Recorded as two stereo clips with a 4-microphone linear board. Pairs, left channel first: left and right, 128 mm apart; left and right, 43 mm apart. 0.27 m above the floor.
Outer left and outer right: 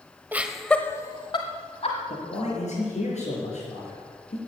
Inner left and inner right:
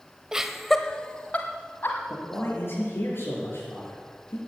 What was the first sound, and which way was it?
Laughter, 15° right (ahead or behind).